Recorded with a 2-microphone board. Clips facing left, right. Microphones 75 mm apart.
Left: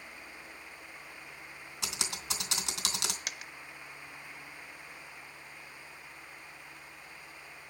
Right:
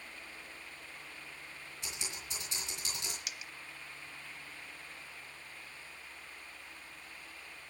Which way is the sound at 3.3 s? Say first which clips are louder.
Left 4 dB; 55° left (ahead or behind).